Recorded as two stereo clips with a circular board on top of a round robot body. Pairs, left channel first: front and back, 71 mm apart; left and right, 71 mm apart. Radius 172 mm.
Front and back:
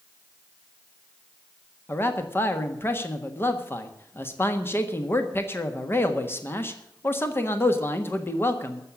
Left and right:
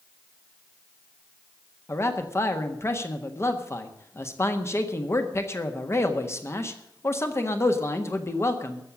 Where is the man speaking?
50° left, 1.7 m.